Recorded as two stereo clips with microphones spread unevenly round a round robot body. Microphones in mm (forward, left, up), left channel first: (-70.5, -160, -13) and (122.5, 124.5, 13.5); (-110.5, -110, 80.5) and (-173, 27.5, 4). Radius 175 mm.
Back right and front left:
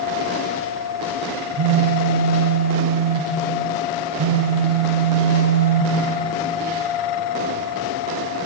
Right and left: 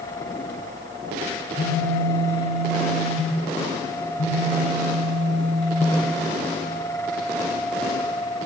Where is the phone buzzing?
5° left, 0.8 m.